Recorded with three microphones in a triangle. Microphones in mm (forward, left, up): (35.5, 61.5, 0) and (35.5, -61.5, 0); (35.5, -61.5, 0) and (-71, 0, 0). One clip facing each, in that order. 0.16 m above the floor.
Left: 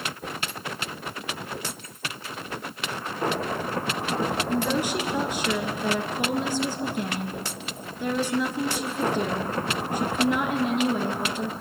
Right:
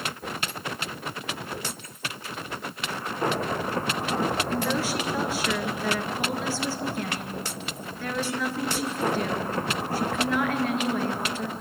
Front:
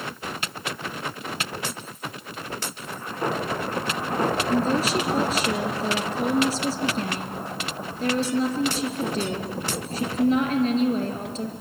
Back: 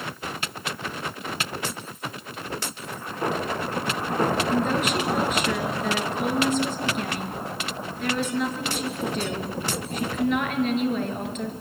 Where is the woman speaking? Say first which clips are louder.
Left 2 dB, front 1 dB; 20° left, 3 m.